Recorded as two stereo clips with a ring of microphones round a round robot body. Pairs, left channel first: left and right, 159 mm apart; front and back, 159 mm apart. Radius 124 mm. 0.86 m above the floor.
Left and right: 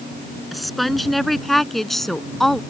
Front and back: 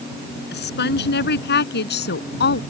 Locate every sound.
0.5 s a woman speaking: straight ahead